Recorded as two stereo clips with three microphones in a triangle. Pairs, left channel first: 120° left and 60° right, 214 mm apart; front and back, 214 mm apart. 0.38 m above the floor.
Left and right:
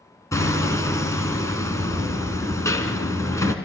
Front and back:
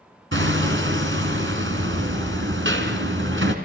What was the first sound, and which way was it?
Hammering, 165° right.